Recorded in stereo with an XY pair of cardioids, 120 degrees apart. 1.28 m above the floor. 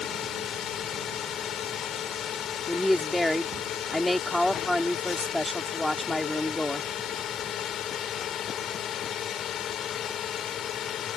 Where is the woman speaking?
5° left.